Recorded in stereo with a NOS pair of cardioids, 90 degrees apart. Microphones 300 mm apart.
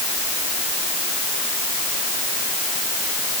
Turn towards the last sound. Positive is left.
No sound to turn to.